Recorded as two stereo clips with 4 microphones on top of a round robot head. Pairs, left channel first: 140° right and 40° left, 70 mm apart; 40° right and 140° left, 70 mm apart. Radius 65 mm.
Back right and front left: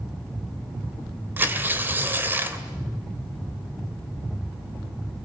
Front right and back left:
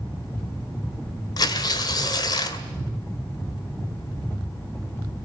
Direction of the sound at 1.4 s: 20° right.